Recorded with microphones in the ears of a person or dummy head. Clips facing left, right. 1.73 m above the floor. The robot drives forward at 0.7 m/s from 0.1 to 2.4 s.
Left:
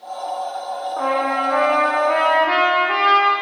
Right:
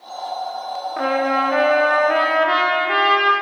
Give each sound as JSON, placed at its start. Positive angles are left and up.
{"t": 1.0, "sound": "a trumpet", "side_deg": -15, "distance_m": 0.6}